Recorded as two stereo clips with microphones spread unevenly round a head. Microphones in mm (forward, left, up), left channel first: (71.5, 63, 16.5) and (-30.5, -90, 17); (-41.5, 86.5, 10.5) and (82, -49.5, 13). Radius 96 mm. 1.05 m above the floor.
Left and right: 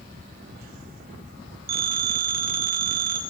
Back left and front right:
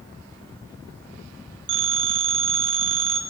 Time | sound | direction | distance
1.7 | a phone ringing | 85° right | 1.8 m